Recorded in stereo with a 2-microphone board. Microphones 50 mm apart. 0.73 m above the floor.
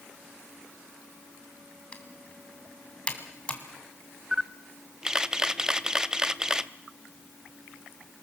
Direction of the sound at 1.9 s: 20° left (ahead or behind).